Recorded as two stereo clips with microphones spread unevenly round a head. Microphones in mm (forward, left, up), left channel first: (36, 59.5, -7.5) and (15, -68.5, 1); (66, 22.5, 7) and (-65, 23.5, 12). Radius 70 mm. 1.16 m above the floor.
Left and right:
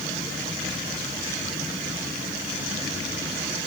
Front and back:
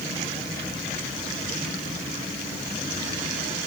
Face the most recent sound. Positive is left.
No sound to turn to.